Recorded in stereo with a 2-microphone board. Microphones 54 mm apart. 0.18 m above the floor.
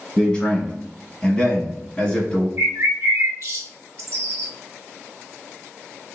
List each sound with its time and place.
0.2 s a man speaking: 20° left (ahead or behind), 1.2 m
2.6 s a bird: 60° right (ahead or behind), 0.7 m